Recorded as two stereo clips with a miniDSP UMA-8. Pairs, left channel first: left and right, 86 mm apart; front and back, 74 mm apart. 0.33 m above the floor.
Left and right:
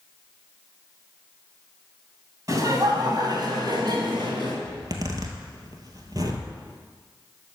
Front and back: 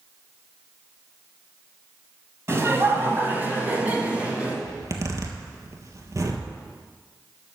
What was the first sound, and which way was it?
Laughter, 130° right.